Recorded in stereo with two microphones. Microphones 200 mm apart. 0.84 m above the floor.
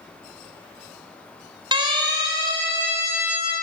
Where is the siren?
25° right (ahead or behind), 3.5 m; by 3.5 s 10° right (ahead or behind), 3.5 m.